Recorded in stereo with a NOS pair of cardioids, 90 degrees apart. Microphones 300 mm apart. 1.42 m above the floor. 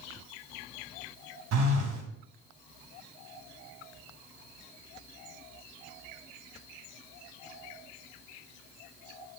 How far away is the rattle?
No rattle in this recording.